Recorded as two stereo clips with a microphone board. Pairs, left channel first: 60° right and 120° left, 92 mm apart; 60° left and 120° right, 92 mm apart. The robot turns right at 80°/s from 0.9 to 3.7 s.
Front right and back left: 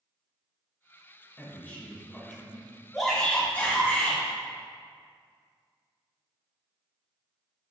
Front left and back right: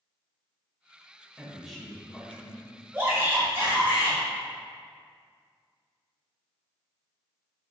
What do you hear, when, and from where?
1.4 s a man speaking: 55° right, 1.0 m; by 2.8 s 65° left, 1.0 m
2.9 s a shout: 150° right, 1.5 m; by 4.2 s 85° right, 1.5 m